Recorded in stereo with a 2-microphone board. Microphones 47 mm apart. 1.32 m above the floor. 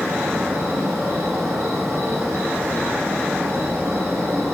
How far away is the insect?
About 1.3 m.